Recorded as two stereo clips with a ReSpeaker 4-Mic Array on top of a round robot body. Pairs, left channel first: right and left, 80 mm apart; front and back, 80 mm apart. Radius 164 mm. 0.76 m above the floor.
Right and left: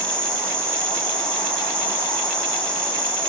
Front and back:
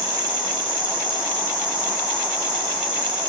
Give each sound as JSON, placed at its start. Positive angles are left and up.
{"t": 0.0, "sound": "an insect", "azimuth_deg": -165, "distance_m": 3.5}